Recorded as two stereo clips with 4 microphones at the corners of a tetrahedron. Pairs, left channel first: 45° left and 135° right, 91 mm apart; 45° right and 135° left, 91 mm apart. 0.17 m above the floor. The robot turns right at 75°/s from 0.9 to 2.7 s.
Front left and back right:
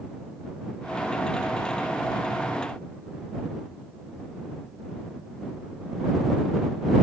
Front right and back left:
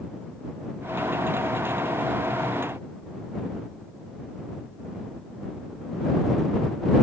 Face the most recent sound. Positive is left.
No sound to turn to.